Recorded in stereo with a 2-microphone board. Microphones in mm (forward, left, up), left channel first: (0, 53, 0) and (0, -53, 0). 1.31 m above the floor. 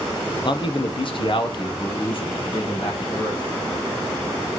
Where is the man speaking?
50° left (ahead or behind), 0.6 m; by 3.4 s 55° left (ahead or behind), 2 m.